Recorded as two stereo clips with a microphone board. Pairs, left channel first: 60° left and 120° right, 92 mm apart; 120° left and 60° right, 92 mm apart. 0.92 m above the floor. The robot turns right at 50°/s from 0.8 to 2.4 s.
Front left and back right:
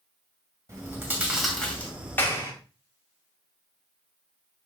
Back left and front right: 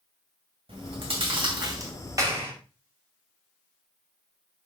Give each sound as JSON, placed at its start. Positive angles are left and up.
{"t": 0.7, "sound": "chewing", "azimuth_deg": -65, "distance_m": 2.5}
{"t": 2.2, "sound": "a clap", "azimuth_deg": -10, "distance_m": 2.5}